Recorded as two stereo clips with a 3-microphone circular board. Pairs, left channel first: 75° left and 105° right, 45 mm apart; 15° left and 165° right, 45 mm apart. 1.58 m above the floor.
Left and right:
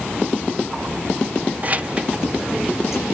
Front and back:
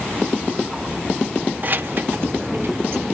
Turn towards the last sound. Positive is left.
turn(degrees=170)